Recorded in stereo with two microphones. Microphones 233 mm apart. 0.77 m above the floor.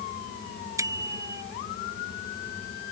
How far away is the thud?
No thud in this recording.